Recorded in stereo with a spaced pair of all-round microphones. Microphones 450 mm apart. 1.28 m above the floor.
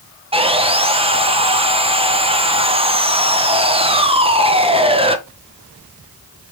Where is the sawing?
15° right (ahead or behind), 0.5 m.